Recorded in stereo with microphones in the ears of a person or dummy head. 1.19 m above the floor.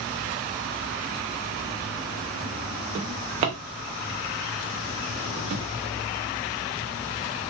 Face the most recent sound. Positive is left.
turn(degrees=-35)  # may be behind; listen again after turning